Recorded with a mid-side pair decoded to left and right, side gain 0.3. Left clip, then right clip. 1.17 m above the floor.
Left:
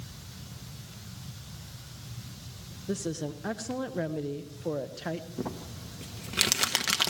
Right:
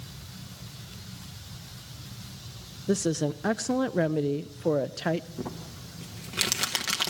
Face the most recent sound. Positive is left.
turn(degrees=30)